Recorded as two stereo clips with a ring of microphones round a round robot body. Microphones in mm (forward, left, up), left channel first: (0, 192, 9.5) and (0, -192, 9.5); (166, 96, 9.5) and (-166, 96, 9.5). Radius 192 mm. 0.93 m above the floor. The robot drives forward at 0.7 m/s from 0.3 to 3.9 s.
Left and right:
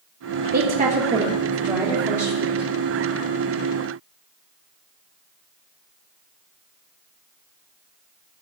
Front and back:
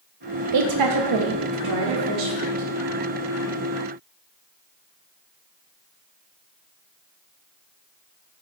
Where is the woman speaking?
150° right, 0.6 m; by 2.7 s 175° right, 2.0 m.